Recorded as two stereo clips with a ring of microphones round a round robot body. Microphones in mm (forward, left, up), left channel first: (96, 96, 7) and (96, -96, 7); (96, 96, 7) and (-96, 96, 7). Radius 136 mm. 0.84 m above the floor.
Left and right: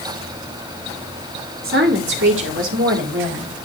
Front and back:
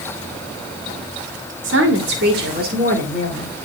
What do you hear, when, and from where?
1.6 s a woman speaking: 145° right, 2 m; by 3.5 s 115° right, 3 m